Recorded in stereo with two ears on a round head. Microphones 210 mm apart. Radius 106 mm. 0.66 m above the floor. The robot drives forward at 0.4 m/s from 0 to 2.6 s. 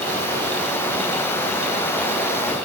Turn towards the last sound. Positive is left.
No sound to turn to.